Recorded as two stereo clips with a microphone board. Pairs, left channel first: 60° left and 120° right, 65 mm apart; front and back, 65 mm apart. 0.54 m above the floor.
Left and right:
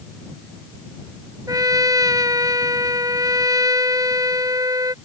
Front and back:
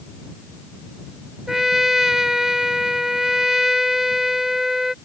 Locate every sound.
1.5 s a trumpet: 95° right